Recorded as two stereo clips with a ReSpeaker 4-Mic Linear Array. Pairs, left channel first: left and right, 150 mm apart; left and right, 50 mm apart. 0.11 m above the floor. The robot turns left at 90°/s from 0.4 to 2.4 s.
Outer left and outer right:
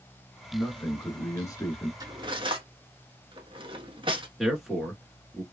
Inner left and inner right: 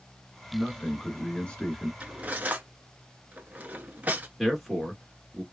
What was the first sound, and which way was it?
A man speaking, centre (ahead or behind).